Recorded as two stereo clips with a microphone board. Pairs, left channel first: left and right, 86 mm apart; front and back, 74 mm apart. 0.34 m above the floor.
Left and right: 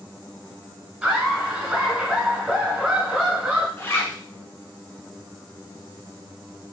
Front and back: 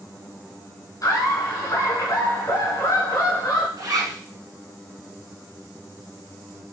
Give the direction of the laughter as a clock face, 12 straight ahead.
12 o'clock.